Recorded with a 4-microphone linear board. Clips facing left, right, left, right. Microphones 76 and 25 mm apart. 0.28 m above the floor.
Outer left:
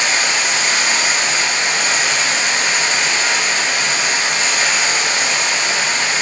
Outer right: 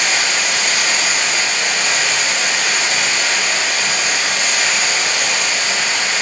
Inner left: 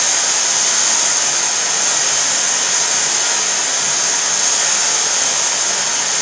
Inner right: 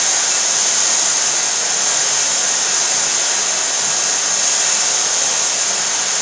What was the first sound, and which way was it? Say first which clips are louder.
Running water: outer left 1 dB, inner left 1 dB; 25° left (ahead or behind).